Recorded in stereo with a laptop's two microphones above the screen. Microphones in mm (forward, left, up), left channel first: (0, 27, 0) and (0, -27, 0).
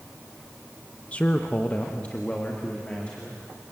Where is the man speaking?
25° left (ahead or behind), 0.8 m; by 3.4 s 20° left (ahead or behind), 2.5 m.